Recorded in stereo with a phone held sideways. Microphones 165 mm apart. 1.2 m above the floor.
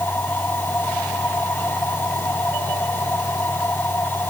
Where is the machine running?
10° left (ahead or behind).